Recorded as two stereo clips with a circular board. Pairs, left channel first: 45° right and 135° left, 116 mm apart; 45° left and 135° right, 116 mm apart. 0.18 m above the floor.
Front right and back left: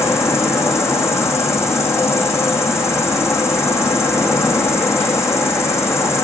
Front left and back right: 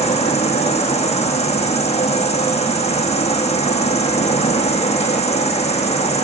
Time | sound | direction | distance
0.0 | an insect | 20° left | 1.8 m